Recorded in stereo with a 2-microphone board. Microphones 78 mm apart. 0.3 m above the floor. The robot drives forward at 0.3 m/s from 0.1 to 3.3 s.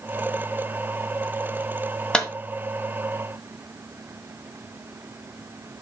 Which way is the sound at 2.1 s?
10° left (ahead or behind).